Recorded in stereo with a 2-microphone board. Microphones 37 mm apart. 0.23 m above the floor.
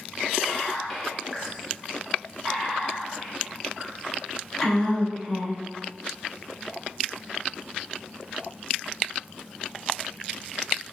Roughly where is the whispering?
Centre.